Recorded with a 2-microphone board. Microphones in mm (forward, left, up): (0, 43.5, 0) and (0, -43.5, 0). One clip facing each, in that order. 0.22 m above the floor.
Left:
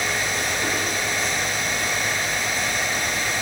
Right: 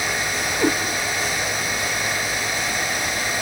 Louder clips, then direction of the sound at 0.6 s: Right 10 dB; 45° right (ahead or behind).